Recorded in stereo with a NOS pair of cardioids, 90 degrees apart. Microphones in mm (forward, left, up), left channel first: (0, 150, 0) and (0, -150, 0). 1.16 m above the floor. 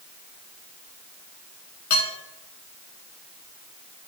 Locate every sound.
1.9 s dishes clattering: 60° left, 4.5 m